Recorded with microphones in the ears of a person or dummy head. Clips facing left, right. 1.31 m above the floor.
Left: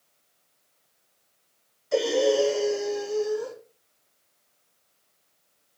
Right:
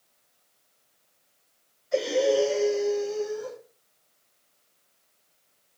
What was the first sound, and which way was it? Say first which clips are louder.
Breathing: left 1 dB; 65° left (ahead or behind).